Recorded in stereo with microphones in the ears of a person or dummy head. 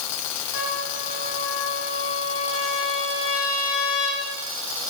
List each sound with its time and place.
0.5 s a trumpet: 80° left, 7 m